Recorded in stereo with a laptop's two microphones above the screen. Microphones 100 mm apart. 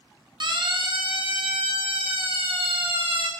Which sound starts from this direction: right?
A siren, at 0.4 s.